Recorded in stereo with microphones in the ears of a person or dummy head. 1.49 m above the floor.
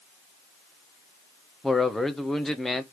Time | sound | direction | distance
1.6 | a man speaking | centre (ahead or behind) | 0.7 m